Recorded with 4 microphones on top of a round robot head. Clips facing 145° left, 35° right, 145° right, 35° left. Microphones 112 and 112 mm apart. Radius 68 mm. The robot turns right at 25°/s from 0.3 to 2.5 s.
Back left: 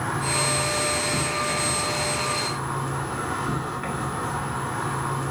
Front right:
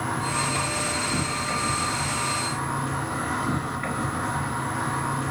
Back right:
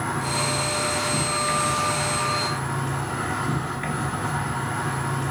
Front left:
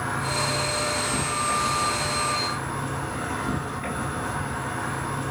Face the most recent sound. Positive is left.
turn(degrees=-135)